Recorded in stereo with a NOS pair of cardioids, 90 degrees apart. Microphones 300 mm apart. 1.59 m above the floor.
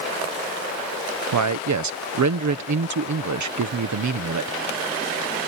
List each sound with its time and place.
1.3 s a man speaking: 70° right